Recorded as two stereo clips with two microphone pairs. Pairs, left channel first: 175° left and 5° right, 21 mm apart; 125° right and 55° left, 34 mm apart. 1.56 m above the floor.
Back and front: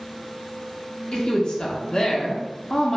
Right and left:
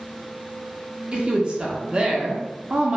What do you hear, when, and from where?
1.1 s a woman speaking: 120° left, 0.6 m